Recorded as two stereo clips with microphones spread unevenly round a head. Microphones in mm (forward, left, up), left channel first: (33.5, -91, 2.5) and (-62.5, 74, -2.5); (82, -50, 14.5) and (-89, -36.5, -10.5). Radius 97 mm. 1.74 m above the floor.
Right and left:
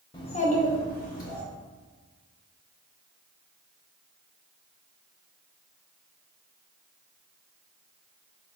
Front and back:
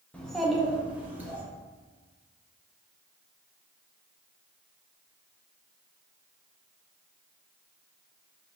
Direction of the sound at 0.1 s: 55° right.